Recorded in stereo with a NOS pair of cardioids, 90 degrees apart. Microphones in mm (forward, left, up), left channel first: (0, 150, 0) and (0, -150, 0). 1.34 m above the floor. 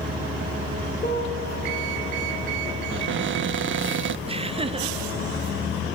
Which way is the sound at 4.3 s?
20° right.